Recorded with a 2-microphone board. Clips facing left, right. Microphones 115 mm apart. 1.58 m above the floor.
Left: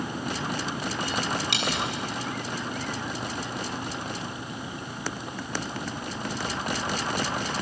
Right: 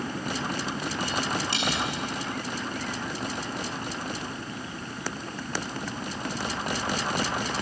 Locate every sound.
1.5 s a dropped coin: 80° left, 7.5 m